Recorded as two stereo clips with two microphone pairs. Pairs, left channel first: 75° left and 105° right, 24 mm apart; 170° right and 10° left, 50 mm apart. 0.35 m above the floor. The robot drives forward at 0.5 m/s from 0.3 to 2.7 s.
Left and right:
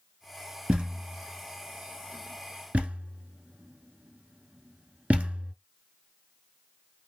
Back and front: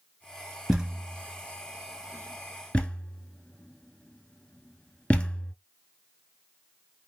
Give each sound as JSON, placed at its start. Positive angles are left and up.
{"t": 0.7, "sound": "a thud", "azimuth_deg": -65, "distance_m": 1.4}